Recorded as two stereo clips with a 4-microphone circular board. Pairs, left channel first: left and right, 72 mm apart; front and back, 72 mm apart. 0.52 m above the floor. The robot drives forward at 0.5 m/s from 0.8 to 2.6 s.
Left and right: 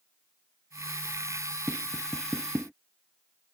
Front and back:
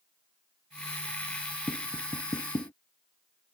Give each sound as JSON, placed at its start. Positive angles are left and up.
{"t": 1.7, "sound": "tapping", "azimuth_deg": 0}